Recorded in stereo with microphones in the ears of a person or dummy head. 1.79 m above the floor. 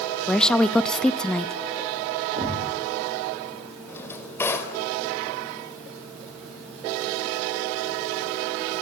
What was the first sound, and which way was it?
A woman speaking, 5° left (ahead or behind).